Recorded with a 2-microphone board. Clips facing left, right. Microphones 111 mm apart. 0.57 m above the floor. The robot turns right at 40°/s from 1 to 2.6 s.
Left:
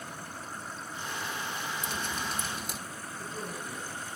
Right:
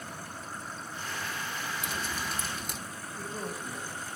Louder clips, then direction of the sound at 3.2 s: Right 2 dB; 65° right (ahead or behind).